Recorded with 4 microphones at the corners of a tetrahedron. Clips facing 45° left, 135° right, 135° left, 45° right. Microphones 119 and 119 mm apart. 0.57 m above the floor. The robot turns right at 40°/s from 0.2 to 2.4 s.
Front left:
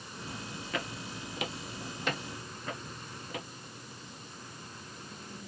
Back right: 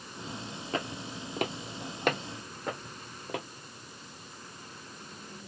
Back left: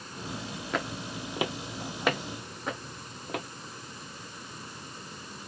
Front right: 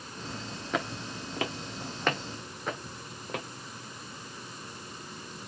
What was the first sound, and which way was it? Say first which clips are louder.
Footsteps: back right 4 dB, front right 1 dB; 130° right.